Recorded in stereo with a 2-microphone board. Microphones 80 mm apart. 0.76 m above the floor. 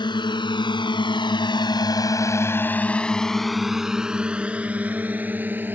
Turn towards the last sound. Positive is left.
turn(degrees=-25)  # may be behind; listen again after turning